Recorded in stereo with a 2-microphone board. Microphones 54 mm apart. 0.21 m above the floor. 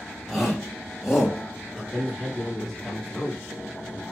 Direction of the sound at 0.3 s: Centre (ahead or behind).